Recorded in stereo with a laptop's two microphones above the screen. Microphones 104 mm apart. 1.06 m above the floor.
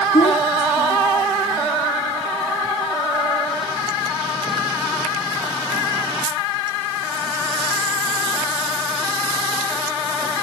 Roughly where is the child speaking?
Left.